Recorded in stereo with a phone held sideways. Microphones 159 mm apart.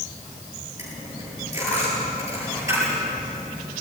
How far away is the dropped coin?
About 10 m.